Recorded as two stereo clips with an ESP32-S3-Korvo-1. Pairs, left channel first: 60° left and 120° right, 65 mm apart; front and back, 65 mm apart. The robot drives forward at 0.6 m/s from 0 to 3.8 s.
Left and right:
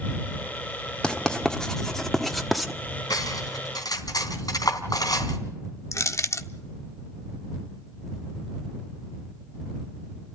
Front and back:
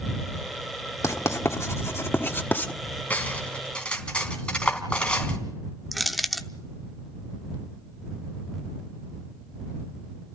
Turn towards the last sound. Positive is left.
turn(degrees=90)